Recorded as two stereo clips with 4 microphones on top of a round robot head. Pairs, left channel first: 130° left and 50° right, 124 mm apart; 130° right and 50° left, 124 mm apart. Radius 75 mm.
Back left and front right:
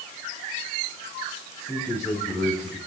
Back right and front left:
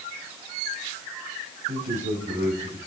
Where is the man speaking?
60° left, 5 m; by 2.8 s 70° left, 4.5 m.